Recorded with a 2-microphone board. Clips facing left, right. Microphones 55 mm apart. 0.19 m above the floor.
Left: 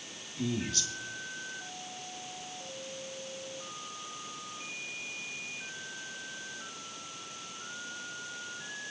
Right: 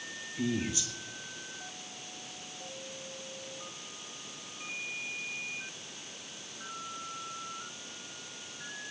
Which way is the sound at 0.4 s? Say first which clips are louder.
Right 1 dB; 15° right (ahead or behind).